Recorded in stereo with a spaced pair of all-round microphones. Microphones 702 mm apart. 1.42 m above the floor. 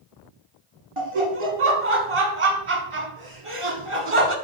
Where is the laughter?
45° right (ahead or behind), 1.3 m.